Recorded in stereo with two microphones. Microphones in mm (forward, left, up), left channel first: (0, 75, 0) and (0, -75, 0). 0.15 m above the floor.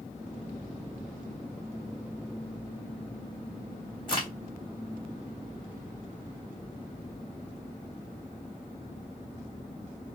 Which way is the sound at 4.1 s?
30° left (ahead or behind).